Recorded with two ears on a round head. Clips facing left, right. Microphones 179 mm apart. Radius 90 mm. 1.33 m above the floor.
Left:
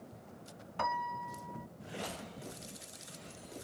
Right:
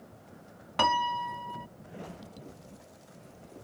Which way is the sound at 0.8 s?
85° right.